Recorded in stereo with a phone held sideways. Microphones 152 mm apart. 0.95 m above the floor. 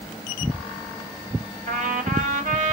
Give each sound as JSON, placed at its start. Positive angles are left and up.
{"t": 1.7, "sound": "a trumpet", "side_deg": -60, "distance_m": 1.9}